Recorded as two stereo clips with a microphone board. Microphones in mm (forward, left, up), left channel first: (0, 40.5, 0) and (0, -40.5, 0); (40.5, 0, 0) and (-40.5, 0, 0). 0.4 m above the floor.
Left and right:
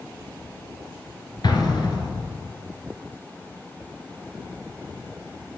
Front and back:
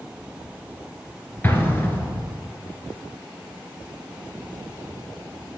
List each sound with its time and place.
1.4 s an explosion: 65° left, 1.8 m